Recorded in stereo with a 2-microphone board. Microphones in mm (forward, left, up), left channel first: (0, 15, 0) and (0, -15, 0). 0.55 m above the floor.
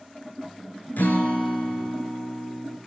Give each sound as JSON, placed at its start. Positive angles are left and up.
{"t": 1.0, "sound": "a guitar", "side_deg": 85, "distance_m": 2.5}